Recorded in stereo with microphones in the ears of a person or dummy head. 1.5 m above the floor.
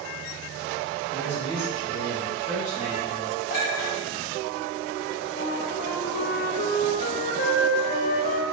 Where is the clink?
65° left (ahead or behind), 1.7 m.